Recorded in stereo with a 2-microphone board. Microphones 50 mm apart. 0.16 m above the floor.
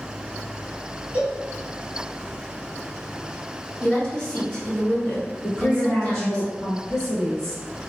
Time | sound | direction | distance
1.1 | a cowbell | 25° right (ahead or behind) | 1.7 m
3.8 | a woman speaking | 20° left (ahead or behind) | 1.7 m
5.4 | a woman speaking | 15° left (ahead or behind) | 1.7 m